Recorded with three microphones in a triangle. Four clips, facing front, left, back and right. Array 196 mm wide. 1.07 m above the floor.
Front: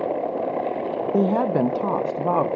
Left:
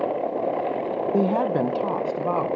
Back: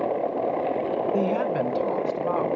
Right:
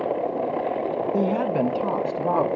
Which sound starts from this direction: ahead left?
A woman speaking, at 1.1 s.